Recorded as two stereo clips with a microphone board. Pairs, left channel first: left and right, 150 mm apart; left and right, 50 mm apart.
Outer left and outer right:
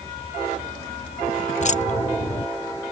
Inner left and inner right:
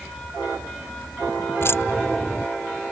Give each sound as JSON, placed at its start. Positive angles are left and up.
{"t": 1.6, "sound": "keys jangling", "side_deg": 55}